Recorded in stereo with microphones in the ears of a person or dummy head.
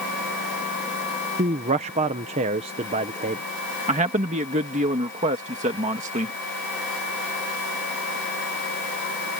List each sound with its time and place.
1.4 s a man speaking: 30° right (ahead or behind)
3.9 s a man speaking: 30° right (ahead or behind)